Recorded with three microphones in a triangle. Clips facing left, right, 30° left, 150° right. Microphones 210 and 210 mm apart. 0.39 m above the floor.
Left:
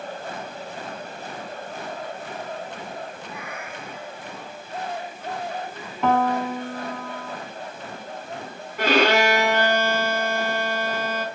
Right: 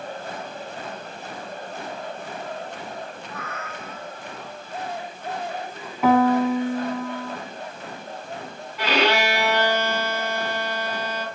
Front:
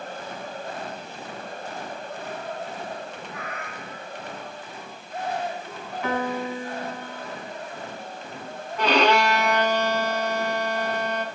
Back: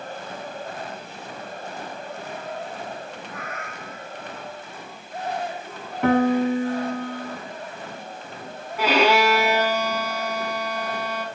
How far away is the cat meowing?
About 2 m.